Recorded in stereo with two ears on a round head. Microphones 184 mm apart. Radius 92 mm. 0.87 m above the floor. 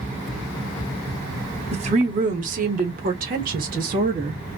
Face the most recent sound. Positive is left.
turn(degrees=-45)  # may be behind; listen again after turning